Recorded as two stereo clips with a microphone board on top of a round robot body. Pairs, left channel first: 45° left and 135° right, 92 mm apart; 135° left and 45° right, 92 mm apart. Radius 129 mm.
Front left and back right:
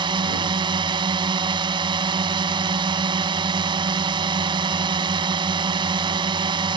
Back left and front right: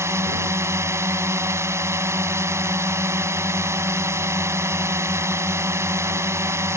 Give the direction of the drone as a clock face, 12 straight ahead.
4 o'clock.